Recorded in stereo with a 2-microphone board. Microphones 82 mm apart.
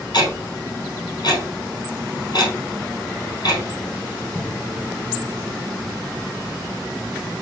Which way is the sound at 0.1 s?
55° left (ahead or behind).